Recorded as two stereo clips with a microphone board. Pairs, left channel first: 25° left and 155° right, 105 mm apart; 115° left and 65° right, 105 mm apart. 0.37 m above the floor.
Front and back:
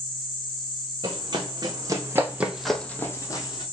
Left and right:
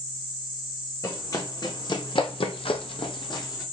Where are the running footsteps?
165° left, 1.4 m; by 3.6 s 65° left, 0.9 m.